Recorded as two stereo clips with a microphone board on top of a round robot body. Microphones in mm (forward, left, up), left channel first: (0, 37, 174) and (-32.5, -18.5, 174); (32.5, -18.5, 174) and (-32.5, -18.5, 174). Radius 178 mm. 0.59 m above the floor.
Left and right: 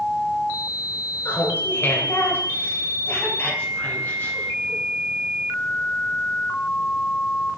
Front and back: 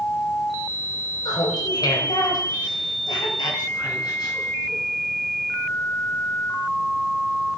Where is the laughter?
5° left, 3 m; by 4.8 s 5° right, 7 m.